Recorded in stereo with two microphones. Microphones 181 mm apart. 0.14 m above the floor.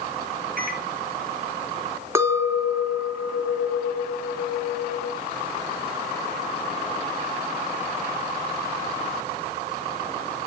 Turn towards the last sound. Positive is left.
turn(degrees=-15)  # may be behind; listen again after turning